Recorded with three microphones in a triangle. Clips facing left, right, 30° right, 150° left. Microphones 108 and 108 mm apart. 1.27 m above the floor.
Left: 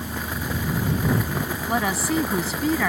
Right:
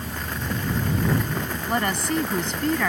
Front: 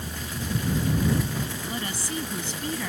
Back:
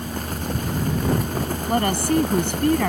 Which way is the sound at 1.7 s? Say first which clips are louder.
Left 1 dB, back 12 dB; 175° left.